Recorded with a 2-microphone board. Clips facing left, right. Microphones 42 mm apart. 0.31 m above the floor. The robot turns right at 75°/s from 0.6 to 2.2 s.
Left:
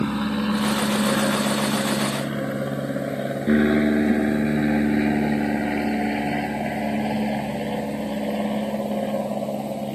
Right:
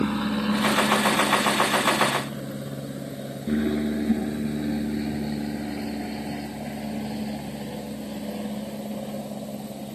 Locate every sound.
0.0 s an aircraft: 5° left (ahead or behind); by 9.9 s 50° left (ahead or behind)